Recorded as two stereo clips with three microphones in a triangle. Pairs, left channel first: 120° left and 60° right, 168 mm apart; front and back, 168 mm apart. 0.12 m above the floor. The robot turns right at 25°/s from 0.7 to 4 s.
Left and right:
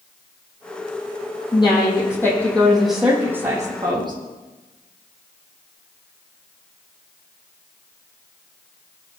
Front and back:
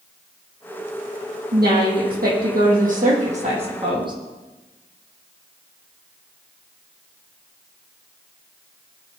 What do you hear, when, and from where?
1.5 s a woman speaking: straight behind, 5.5 m; by 4.1 s 120° right, 5.5 m